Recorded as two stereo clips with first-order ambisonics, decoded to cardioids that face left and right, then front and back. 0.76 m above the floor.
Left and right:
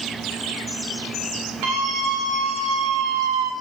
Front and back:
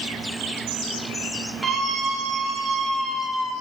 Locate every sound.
1.6 s a scream: 90° right, 5 m; by 3.5 s 75° right, 3.5 m